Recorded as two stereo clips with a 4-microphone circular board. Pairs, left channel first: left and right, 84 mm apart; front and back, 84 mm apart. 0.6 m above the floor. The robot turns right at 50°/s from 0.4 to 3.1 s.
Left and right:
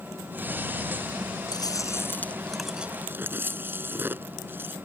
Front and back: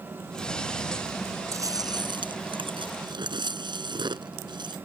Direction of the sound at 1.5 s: 125° left.